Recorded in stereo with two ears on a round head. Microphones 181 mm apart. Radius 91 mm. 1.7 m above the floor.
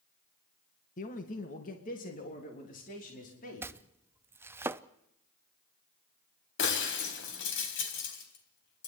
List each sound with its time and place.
1.0 s a man speaking: 40° left (ahead or behind), 1.9 m; by 3.7 s 45° left (ahead or behind), 5 m
3.6 s chopping: 10° right (ahead or behind), 0.6 m
6.6 s breaking glass: 65° left (ahead or behind), 3.5 m